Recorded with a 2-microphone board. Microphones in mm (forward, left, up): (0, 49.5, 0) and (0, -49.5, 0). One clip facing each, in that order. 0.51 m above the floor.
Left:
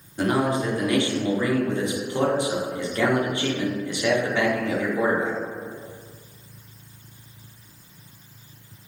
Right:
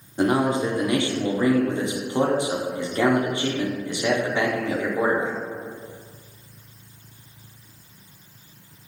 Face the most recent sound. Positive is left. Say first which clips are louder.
# right 2 dB
turn(degrees=-25)  # may be behind; listen again after turning